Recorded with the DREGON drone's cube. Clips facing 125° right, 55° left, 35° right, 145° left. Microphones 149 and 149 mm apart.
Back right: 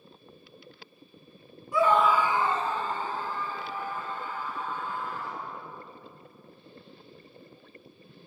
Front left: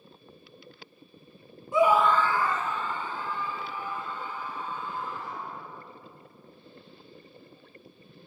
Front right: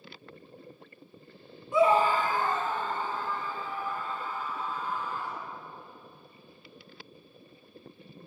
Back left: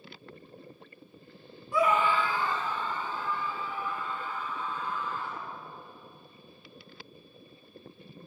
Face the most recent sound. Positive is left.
turn(degrees=-85)